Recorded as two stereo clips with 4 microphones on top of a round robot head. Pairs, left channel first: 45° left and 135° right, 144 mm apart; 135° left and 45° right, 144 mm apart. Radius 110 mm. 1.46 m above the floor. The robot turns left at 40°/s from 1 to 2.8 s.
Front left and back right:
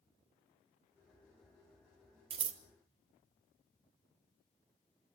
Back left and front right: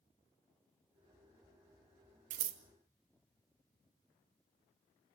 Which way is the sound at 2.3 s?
80° right.